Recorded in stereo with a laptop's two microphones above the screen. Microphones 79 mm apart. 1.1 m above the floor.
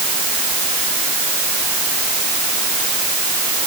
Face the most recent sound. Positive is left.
No sound to turn to.